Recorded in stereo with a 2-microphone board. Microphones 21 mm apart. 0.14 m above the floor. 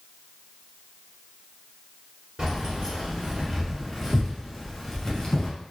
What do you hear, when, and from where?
2.4 s keys jangling: 35° right (ahead or behind), 1.5 m; by 5.5 s 25° left (ahead or behind), 1.1 m